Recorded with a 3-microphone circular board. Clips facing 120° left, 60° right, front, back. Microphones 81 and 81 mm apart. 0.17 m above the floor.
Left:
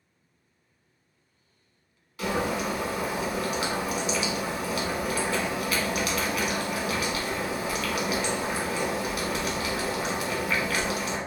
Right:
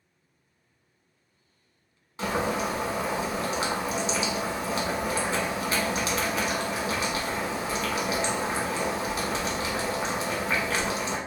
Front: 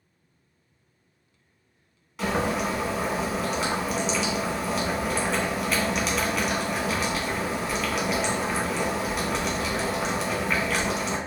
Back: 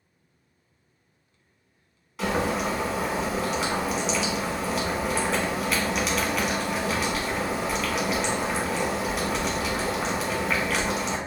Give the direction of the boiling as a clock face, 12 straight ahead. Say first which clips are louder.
Even, even; 3 o'clock.